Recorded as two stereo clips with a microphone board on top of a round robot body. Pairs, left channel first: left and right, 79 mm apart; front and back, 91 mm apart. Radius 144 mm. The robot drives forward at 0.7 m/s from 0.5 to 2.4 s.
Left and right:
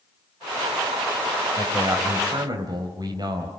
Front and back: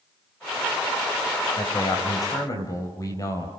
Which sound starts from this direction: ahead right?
A man speaking, at 1.6 s.